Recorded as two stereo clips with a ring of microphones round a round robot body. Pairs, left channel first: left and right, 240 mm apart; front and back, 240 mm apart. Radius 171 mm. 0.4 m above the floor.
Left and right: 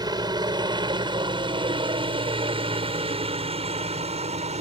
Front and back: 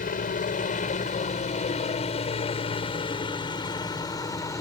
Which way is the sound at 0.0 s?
30° right.